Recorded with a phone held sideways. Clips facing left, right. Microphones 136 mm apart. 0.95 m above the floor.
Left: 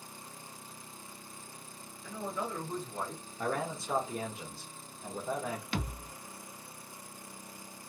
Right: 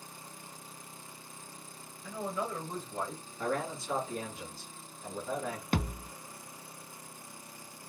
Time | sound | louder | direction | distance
2.0 | a man speaking | right 2 dB | 5° right (ahead or behind) | 2 m
3.4 | a man speaking | even | 20° left (ahead or behind) | 1.3 m
5.7 | a thud | right 4 dB | 50° right (ahead or behind) | 0.7 m